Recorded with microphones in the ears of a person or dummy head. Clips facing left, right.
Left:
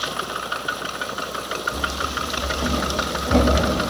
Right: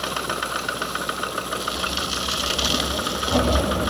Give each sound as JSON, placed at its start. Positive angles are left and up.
{"t": 1.7, "sound": "running footsteps", "side_deg": 30, "distance_m": 7.5}